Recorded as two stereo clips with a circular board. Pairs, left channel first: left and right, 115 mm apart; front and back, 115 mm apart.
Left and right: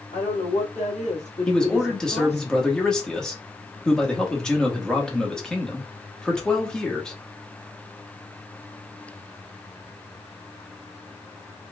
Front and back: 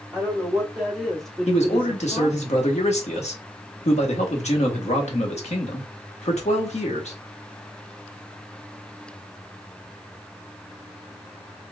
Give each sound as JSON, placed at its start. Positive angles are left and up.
{"t": 0.1, "sound": "a woman speaking", "azimuth_deg": 100, "distance_m": 2.0}
{"t": 1.5, "sound": "a man speaking", "azimuth_deg": 5, "distance_m": 1.1}